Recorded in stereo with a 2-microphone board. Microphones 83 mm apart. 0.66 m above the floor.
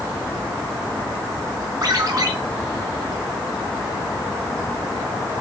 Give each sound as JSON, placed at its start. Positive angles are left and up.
{"t": 1.8, "sound": "a ringtone", "side_deg": -60, "distance_m": 4.5}